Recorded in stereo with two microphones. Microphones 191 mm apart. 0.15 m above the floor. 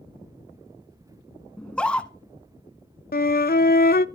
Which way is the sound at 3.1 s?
55° left (ahead or behind).